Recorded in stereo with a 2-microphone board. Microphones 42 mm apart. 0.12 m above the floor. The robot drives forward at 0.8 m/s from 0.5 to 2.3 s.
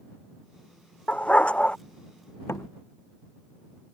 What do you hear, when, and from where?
1.1 s a dog barking: 35° left (ahead or behind); by 1.8 s 25° left (ahead or behind)
2.5 s a door slam: 80° left